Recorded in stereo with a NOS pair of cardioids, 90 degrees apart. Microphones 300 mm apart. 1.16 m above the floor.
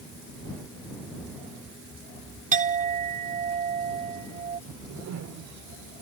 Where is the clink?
25° right.